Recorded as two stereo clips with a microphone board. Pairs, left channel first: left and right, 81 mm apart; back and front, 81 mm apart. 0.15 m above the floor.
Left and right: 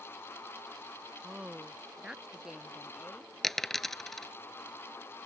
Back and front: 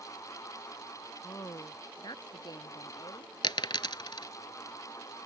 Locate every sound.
1.2 s a woman speaking: 165° right; by 3.3 s 170° right
3.4 s a dropped coin: 175° left